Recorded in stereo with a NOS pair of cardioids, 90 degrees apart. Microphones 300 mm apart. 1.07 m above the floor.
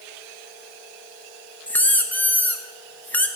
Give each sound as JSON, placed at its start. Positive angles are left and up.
{"t": 1.7, "sound": "a squeak", "azimuth_deg": 5, "distance_m": 0.7}